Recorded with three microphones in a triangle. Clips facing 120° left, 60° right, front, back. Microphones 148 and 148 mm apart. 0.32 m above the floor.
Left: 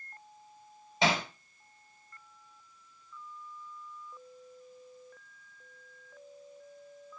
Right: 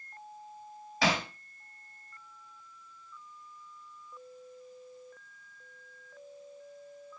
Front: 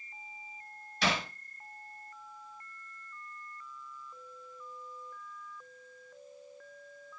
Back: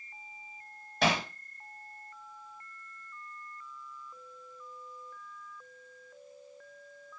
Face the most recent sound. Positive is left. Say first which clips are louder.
# left 1 dB, back 4 dB
turn(degrees=-175)